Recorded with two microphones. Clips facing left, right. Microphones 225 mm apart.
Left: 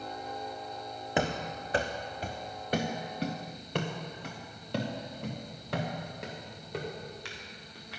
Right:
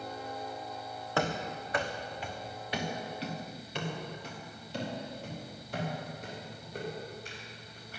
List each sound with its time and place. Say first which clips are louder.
1.2 s running footsteps: left 1 dB; 20° left (ahead or behind), 1.3 m; by 8.0 s 80° left, 4.5 m